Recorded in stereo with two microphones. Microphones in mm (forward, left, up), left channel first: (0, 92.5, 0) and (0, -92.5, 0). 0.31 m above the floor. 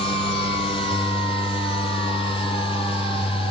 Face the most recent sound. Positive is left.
No sound to turn to.